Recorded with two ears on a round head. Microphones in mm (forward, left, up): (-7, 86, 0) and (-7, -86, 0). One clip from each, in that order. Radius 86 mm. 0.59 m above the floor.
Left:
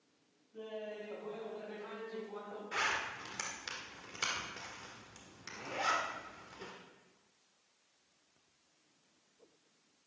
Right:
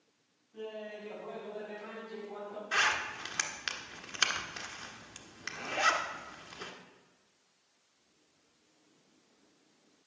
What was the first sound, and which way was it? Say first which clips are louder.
Laughter: right 2 dB; 50° right (ahead or behind).